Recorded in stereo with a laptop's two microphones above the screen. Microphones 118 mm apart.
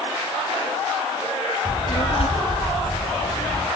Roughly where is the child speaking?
Left.